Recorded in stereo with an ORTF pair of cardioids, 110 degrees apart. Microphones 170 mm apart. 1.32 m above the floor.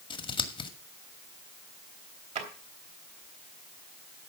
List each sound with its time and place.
0.1 s scissors: 30° left, 2 m
2.4 s a drawer: 45° right, 3 m